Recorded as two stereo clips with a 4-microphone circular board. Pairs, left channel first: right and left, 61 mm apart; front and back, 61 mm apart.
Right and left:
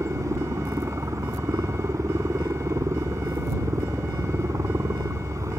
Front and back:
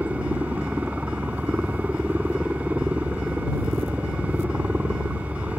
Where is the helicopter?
115° left.